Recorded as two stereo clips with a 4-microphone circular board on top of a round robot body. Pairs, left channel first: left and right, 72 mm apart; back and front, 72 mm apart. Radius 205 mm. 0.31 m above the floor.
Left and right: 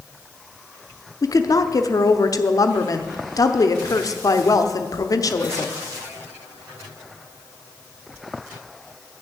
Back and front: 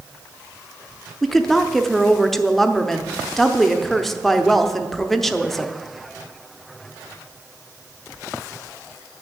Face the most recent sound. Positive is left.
turn(degrees=95)